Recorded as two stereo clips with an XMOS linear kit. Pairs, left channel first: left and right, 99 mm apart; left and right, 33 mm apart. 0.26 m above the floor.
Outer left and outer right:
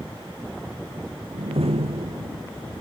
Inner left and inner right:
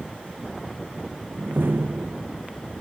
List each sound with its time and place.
1.3 s a door slam: 75° right (ahead or behind)